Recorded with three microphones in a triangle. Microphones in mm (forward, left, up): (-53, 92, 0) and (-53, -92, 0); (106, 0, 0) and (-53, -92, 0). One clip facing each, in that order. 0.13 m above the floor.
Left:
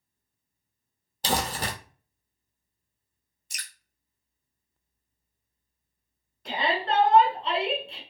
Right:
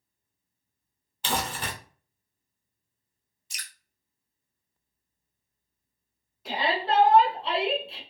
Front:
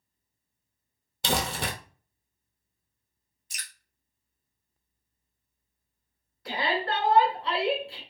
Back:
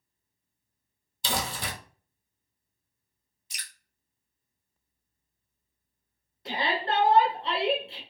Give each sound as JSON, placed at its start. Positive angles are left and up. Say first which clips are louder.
{"t": 1.2, "sound": "crumpling", "louder": "left 2 dB, front 4 dB", "azimuth_deg": 45, "distance_m": 0.6}
{"t": 3.5, "sound": "dripping", "louder": "left 1 dB, front 1 dB", "azimuth_deg": 60, "distance_m": 0.8}
{"t": 6.5, "sound": "a shout", "louder": "even, front 1 dB", "azimuth_deg": -170, "distance_m": 1.1}